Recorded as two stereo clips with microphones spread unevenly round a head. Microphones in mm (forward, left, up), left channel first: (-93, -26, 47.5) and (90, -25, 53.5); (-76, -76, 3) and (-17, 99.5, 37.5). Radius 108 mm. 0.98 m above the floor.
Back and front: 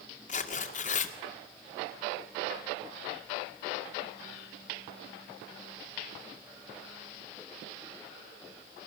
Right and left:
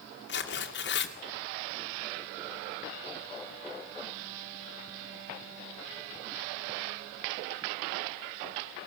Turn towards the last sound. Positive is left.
turn(degrees=-130)